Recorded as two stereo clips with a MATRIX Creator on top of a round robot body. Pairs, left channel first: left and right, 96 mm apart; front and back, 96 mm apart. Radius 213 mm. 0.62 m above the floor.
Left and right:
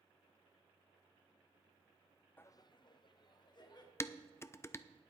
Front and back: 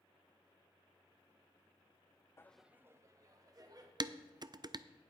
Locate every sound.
2.4 s laughter: 35° left, 0.6 m; by 3.9 s 135° left, 2 m
4.0 s dishes clattering: 145° left, 0.6 m